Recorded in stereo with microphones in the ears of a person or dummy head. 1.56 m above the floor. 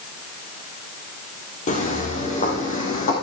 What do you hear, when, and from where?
1.7 s footsteps: 40° left (ahead or behind), 3 m